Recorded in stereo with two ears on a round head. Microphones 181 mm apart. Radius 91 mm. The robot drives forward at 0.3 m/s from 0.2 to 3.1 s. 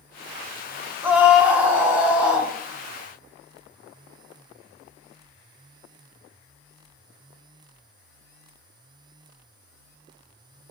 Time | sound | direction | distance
1.0 | a scream | 10° right (ahead or behind) | 0.8 m